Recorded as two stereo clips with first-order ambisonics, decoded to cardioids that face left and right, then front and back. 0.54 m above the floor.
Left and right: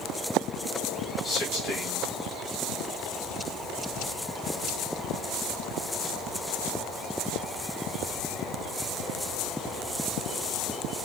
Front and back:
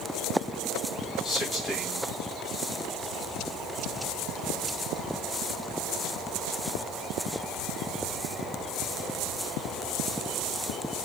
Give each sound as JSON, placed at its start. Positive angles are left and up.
{"t": 1.2, "sound": "a man speaking", "azimuth_deg": 65, "distance_m": 1.1}